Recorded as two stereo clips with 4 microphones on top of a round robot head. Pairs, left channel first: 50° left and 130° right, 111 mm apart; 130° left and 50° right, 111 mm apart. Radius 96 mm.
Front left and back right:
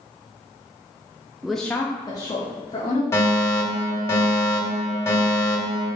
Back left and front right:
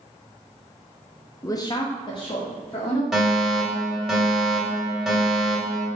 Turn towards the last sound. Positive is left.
turn(degrees=40)